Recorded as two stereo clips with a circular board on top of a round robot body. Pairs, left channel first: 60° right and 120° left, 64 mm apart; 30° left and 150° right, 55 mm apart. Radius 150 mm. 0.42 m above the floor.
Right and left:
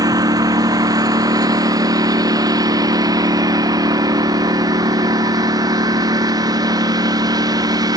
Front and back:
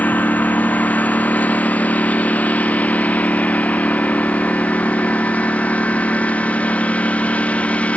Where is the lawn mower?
95° left; by 8.0 s 100° left.